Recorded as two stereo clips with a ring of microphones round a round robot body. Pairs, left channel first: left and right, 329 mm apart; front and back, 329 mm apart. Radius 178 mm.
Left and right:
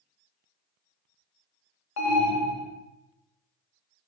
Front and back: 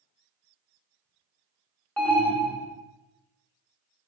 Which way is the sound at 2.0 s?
85° left.